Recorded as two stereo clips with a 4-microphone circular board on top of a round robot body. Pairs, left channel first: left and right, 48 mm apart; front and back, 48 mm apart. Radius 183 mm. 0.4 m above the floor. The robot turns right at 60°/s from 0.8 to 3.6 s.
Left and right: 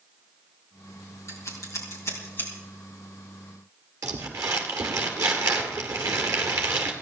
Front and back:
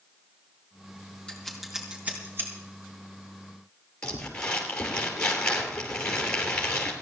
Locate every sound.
1.3 s scissors: 70° left, 4 m; by 2.5 s 145° left, 4 m
4.0 s crumpling: 75° right, 2 m